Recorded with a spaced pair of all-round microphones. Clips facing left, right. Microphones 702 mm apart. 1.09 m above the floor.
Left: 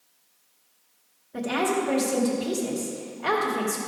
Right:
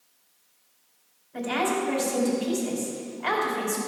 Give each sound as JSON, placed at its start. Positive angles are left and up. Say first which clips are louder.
{"t": 1.3, "sound": "a woman speaking", "louder": "left 2 dB", "side_deg": 65, "distance_m": 2.5}